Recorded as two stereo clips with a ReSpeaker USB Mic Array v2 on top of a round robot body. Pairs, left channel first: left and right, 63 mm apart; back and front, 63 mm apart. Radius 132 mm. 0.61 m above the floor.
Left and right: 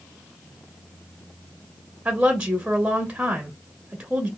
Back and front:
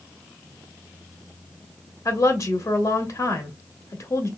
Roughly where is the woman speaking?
Behind right.